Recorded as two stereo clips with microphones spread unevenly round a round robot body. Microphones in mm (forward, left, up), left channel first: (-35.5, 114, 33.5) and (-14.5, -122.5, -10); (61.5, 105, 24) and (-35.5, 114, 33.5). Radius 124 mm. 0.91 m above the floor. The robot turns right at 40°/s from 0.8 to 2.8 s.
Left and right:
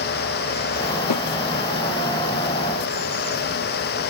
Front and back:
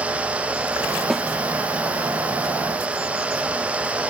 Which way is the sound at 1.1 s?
85° left.